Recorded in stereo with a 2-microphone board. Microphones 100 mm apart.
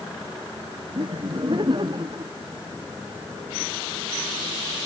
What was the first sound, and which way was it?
Laughter, 55° right (ahead or behind).